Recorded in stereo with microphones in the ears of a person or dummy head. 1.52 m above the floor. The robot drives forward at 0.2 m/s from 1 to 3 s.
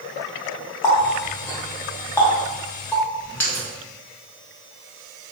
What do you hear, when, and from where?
0.8 s a running tap: 15° left (ahead or behind), 0.6 m; by 3.6 s 10° left (ahead or behind), 0.8 m